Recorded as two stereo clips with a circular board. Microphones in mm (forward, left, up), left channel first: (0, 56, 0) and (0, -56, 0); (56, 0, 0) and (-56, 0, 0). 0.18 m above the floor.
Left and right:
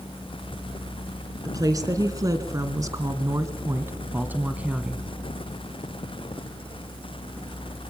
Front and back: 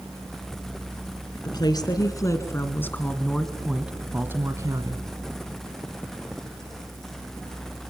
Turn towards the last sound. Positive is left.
turn(degrees=-165)